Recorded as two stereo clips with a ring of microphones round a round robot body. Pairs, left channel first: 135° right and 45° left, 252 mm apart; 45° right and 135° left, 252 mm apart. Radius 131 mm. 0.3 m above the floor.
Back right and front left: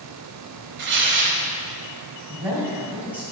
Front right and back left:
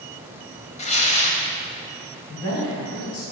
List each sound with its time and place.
0.8 s tearing paper: 15° left, 1.1 m
2.3 s a man speaking: 35° right, 2.5 m